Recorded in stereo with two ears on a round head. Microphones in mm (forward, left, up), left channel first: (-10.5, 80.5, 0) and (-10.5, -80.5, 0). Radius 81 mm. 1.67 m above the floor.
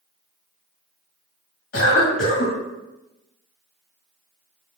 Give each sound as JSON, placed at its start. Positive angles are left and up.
{"t": 1.7, "sound": "a cough", "side_deg": 75, "distance_m": 1.6}